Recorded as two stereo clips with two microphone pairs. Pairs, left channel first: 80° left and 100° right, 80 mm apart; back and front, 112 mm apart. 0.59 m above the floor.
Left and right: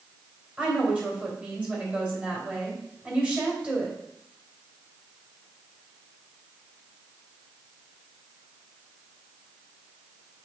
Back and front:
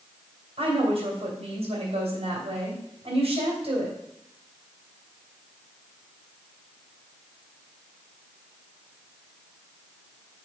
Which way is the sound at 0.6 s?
25° right.